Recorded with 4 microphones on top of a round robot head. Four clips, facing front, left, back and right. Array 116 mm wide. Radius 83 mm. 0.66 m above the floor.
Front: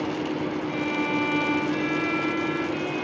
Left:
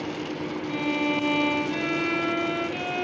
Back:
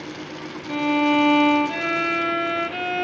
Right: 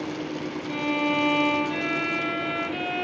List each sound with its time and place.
0.7 s a violin: 175° left, 1.1 m